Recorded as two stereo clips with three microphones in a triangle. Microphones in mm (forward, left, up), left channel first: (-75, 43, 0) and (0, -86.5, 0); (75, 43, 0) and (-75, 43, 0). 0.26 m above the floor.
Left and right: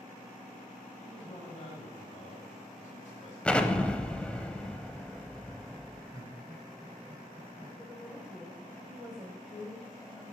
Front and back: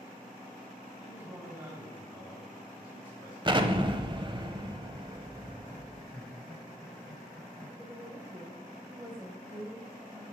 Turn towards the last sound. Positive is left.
turn(degrees=-135)